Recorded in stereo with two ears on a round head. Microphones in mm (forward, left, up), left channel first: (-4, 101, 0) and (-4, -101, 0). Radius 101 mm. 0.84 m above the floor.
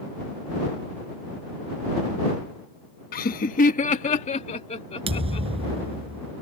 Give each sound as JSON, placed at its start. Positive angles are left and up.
{"t": 3.1, "sound": "laughter", "side_deg": 40}
{"t": 5.1, "sound": "a thud", "side_deg": -25}